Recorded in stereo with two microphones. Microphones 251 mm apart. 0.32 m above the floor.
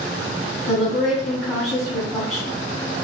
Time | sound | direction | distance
0.7 | a woman speaking | 10° right (ahead or behind) | 1.8 m